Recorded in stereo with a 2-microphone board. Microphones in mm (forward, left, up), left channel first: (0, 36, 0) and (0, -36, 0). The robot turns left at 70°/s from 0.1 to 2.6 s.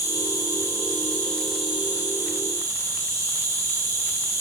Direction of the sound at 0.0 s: 95° left.